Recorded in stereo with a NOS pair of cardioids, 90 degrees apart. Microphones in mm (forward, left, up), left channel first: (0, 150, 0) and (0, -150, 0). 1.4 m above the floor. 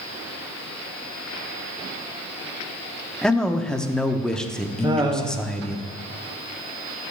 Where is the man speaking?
Straight ahead, 0.8 m.